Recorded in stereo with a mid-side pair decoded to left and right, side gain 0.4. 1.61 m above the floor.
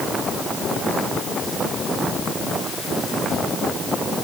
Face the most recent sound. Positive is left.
No sound to turn to.